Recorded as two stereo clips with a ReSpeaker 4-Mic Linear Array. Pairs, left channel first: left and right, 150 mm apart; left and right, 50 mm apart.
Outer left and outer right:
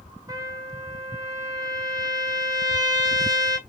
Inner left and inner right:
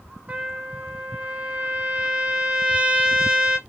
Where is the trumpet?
25° right (ahead or behind), 0.9 m.